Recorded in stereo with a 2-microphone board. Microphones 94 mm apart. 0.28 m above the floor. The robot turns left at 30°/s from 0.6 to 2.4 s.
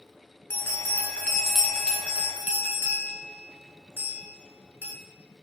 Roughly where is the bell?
Left.